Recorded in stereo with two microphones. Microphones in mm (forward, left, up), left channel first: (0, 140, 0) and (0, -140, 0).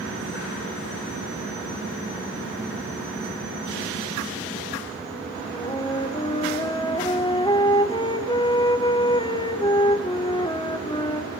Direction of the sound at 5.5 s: 15° left (ahead or behind).